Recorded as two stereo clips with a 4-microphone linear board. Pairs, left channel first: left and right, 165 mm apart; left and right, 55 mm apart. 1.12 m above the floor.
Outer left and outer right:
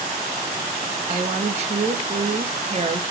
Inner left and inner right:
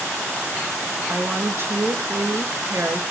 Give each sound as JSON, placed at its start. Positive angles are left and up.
{"t": 1.1, "sound": "a woman speaking", "side_deg": -40, "distance_m": 0.6}